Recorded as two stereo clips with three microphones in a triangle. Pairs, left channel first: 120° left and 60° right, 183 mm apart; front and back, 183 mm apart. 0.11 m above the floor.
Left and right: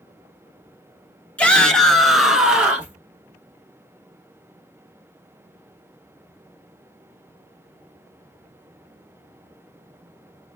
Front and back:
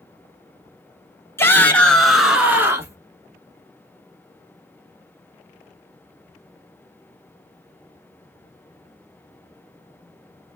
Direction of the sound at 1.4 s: 50° left.